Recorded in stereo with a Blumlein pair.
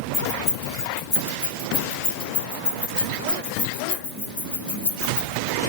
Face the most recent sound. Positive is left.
turn(degrees=60)